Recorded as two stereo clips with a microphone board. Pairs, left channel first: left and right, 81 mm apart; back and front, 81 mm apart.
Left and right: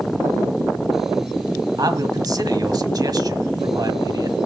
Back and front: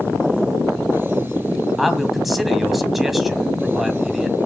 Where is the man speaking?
90° right, 1.7 m.